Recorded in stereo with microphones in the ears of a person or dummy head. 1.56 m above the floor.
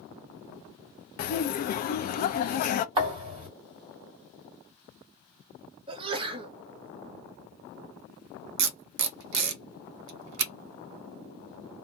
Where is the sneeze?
30° right (ahead or behind), 0.7 m.